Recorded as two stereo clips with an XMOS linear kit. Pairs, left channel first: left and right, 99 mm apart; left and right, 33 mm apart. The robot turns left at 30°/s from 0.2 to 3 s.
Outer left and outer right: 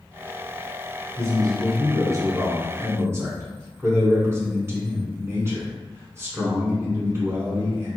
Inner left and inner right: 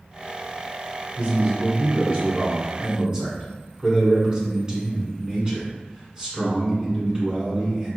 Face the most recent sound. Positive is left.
turn(degrees=-125)